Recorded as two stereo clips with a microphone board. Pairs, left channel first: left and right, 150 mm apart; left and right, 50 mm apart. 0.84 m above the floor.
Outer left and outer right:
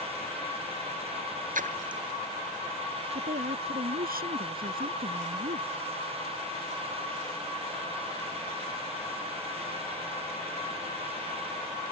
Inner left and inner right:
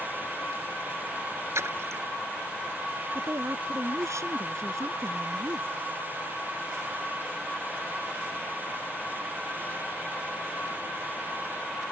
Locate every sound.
1.6 s a splash: 65° right (ahead or behind)
3.1 s a woman speaking: 80° right